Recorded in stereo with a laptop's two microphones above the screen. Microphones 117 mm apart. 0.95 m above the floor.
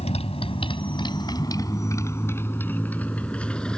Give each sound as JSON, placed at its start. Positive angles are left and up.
{"t": 0.0, "sound": "a motorcycle", "side_deg": 65}